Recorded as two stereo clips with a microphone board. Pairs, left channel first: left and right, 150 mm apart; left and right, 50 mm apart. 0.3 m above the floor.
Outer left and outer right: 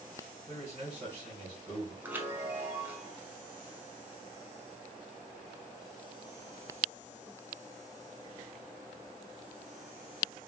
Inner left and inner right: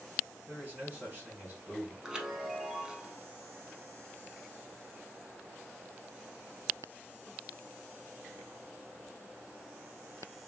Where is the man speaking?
35° right (ahead or behind), 1.6 m.